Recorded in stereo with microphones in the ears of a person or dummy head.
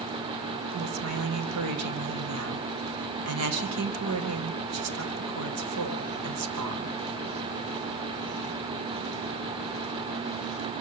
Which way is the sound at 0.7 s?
75° right (ahead or behind).